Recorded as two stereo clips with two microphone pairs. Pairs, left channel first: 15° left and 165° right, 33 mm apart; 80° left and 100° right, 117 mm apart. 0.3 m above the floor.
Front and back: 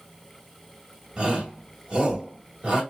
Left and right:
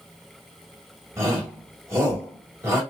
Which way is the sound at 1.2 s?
145° right.